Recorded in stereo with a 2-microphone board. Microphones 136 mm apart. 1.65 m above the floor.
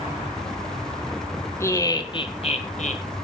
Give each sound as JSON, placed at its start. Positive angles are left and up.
{"t": 1.6, "sound": "laughter", "side_deg": 20, "distance_m": 2.0}